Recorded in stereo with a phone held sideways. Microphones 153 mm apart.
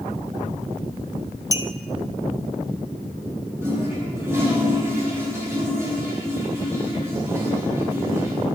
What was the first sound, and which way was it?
A clink, 20° right (ahead or behind).